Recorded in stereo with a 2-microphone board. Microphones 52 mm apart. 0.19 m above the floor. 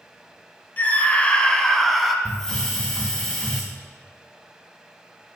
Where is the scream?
30° left (ahead or behind), 1.3 m; by 2.1 s centre (ahead or behind), 1.3 m.